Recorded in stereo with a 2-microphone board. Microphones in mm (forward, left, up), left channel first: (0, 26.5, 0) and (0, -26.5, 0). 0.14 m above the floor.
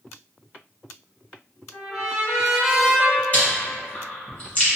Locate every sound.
1.7 s a trumpet: 10° right (ahead or behind), 0.8 m
3.3 s chewing: 25° left (ahead or behind), 1.4 m